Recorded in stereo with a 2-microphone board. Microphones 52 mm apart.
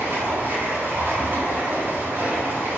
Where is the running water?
40° right (ahead or behind), 3 m.